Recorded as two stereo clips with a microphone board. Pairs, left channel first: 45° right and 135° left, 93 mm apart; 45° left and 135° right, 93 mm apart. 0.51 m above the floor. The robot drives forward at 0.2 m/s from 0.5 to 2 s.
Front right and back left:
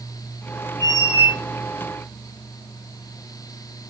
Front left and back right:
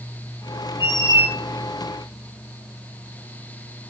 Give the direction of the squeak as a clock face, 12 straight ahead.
6 o'clock.